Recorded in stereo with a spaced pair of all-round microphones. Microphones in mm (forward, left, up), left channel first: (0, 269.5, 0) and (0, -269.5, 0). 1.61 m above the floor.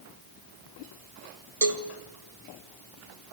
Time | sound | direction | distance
1.6 | a cowbell | 80° right | 1.8 m